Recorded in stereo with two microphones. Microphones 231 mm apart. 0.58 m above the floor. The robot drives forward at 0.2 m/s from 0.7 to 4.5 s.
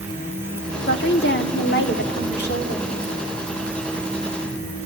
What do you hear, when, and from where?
0.9 s a woman speaking: 50° left (ahead or behind), 1.3 m